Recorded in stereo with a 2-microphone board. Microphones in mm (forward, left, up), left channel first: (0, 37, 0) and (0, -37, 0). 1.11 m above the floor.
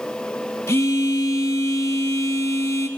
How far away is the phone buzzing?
About 1.4 m.